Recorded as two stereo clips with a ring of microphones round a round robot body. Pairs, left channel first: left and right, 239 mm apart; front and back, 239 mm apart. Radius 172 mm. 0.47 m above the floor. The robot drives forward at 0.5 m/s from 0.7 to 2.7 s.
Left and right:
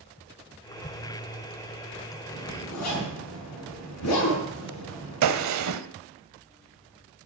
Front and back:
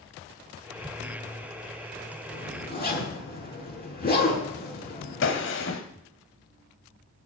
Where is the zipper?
50° left, 6.5 m.